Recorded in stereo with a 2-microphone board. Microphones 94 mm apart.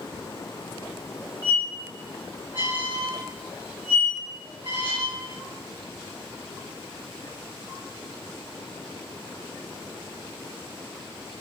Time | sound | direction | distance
1.4 | a squeak | 55° left (ahead or behind) | 1.6 m